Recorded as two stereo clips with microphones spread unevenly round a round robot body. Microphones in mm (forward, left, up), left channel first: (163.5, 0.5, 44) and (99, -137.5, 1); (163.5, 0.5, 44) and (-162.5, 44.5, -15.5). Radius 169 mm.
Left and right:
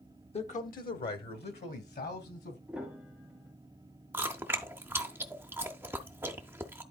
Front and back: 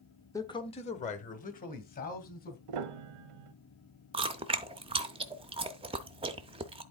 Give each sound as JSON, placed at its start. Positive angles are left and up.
{"t": 0.3, "sound": "a man speaking", "azimuth_deg": 85, "distance_m": 0.9}
{"t": 2.7, "sound": "a piano", "azimuth_deg": 160, "distance_m": 0.6}
{"t": 4.1, "sound": "chewing", "azimuth_deg": -145, "distance_m": 0.6}